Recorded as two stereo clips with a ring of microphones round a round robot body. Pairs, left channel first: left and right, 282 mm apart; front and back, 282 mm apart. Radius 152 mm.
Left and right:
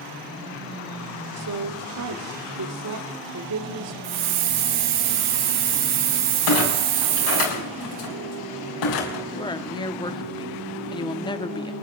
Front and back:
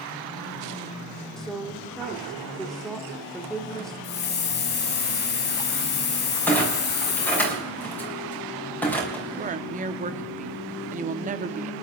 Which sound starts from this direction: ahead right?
A hiss, at 4.0 s.